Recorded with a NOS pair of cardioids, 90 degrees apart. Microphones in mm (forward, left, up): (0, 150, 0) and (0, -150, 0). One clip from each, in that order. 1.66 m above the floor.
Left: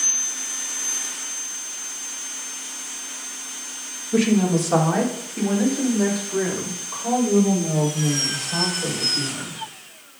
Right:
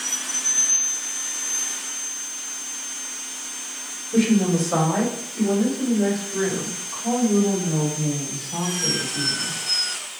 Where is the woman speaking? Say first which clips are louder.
Left 1 dB; 45° left, 2.5 m; by 9.6 s 50° left, 7 m.